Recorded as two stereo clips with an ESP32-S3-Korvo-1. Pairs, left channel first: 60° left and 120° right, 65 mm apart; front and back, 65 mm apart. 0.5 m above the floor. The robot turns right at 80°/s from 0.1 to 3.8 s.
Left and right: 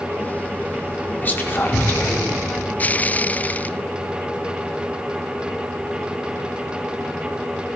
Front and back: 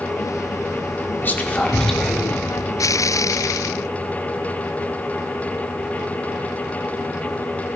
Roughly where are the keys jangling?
I don't hear keys jangling.